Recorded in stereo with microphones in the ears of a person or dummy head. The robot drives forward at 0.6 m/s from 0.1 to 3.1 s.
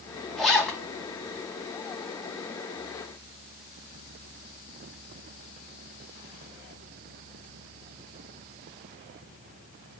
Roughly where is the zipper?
Centre.